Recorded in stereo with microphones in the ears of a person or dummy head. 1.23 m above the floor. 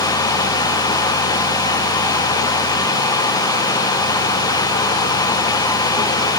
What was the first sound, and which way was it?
Only background noise.